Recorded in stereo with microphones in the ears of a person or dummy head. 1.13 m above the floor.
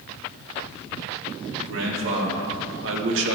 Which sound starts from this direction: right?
A man speaking, at 1.6 s.